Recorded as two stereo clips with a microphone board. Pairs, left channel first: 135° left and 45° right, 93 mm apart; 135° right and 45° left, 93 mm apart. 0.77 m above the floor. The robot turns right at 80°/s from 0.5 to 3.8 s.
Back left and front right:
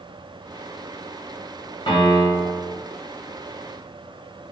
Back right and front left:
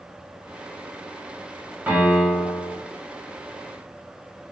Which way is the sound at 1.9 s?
115° left.